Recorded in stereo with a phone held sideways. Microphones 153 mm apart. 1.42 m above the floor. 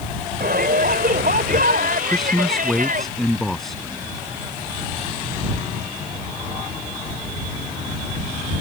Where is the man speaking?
Centre (ahead or behind).